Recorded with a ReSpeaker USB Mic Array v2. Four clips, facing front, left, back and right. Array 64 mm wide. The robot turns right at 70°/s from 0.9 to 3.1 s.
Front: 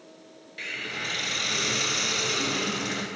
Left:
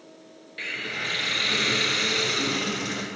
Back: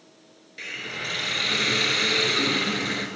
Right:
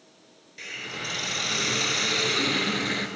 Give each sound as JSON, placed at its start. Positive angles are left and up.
{"t": 0.6, "sound": "a hiss", "azimuth_deg": 85, "distance_m": 1.2}